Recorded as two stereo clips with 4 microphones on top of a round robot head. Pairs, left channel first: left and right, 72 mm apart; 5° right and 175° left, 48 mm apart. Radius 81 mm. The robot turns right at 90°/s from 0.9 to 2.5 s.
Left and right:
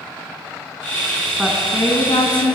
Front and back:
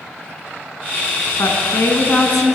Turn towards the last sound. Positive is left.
turn(degrees=95)